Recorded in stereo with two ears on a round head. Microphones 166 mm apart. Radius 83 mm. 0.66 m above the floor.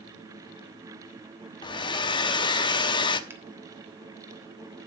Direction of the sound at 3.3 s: 15° right (ahead or behind).